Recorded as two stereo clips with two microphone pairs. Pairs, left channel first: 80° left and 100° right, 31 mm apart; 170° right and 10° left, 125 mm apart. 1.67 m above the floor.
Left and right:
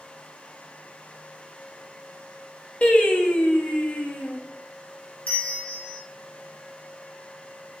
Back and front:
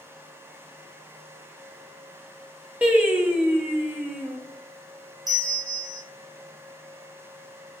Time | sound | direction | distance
2.8 | singing | 80° left | 0.6 m
5.3 | a bell | 50° left | 0.8 m